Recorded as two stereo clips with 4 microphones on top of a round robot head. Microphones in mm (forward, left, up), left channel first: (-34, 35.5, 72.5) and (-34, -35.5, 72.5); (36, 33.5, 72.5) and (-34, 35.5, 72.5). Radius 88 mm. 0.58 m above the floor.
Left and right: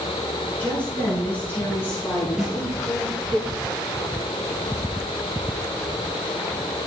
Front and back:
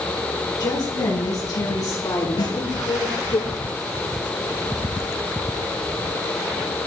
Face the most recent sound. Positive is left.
turn(degrees=0)